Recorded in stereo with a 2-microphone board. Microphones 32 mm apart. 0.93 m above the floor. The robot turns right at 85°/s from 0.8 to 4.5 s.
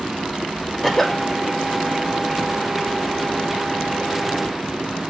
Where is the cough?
Straight ahead, 0.8 m; by 1.2 s 35° left, 0.8 m.